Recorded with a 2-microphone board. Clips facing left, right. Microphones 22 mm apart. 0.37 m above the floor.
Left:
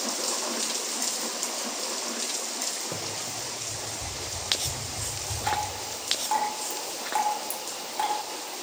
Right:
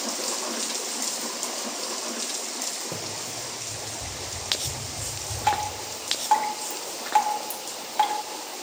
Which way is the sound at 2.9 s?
5° left (ahead or behind).